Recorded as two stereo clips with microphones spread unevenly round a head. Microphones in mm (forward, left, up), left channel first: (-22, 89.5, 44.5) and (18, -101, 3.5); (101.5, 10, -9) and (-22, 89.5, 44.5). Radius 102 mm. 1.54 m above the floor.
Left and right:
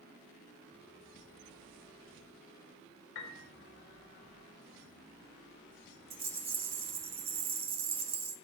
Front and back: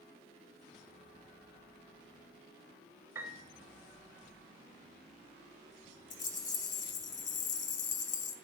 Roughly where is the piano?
Left.